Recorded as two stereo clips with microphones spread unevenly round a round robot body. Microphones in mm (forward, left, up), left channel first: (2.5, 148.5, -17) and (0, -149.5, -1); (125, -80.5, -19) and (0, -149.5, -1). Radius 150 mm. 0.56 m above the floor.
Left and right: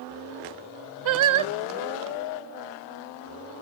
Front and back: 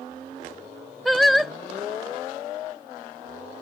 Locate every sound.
1.1 s singing: 60° right